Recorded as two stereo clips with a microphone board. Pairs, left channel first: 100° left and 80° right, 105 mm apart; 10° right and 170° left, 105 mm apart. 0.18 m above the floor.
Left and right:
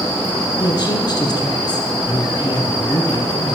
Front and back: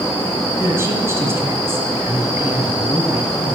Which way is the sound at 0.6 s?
115° left.